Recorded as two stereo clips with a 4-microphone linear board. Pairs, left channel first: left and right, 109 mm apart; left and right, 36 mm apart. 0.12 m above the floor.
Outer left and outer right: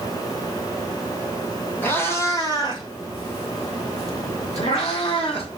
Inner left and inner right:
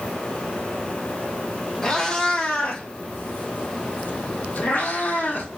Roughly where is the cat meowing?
Centre.